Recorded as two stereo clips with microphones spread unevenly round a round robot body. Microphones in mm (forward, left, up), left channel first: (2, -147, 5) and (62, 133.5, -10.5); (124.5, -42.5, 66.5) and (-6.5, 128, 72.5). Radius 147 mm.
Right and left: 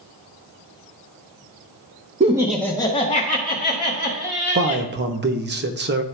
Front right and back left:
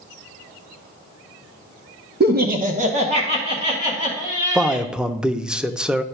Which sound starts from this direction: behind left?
Laughter, at 2.2 s.